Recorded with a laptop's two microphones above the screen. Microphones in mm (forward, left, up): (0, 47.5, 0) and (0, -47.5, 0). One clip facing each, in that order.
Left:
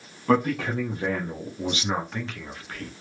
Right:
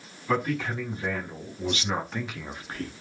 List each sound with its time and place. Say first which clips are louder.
0.3 s a man speaking: left 5 dB; 60° left (ahead or behind), 1.0 m; by 2.9 s 35° right (ahead or behind), 0.8 m